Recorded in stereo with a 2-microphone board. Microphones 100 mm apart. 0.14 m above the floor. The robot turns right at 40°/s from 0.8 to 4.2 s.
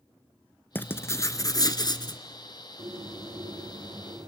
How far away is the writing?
About 1.0 m.